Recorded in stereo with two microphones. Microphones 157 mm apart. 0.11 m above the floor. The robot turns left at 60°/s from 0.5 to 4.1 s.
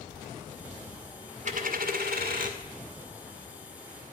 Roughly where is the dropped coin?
Ahead right.